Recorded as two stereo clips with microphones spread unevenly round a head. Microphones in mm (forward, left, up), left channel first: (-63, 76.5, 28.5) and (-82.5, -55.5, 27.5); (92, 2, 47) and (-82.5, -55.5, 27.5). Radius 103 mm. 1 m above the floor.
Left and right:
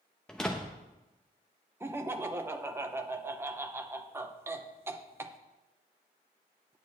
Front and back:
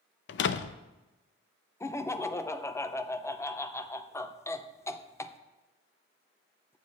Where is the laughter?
50° right, 0.8 m.